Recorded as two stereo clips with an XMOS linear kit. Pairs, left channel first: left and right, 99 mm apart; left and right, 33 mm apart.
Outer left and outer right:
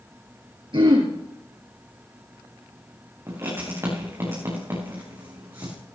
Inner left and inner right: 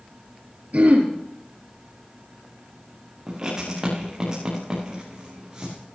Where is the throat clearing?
55° right (ahead or behind), 3 m.